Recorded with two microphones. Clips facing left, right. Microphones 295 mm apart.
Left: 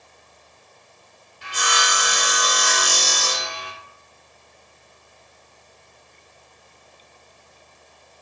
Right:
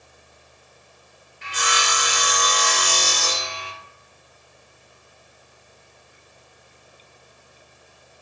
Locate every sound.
1.4 s sawing: 50° left (ahead or behind), 0.9 m